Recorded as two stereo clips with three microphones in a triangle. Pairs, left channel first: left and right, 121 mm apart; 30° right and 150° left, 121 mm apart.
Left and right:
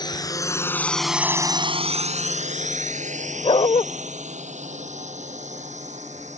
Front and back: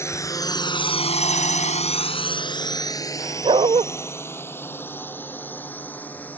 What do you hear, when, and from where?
0.0 s a drone: 35° left; by 6.4 s 105° right
3.4 s a dog barking: 120° left